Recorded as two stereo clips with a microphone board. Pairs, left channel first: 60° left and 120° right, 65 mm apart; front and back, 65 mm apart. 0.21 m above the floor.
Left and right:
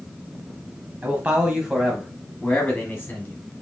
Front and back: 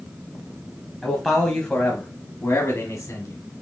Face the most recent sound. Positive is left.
turn(degrees=10)